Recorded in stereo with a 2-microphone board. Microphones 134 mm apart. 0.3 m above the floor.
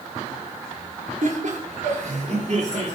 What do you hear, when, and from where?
1.2 s laughter: 60° right (ahead or behind), 4.5 m; by 3.0 s 55° right (ahead or behind), 6 m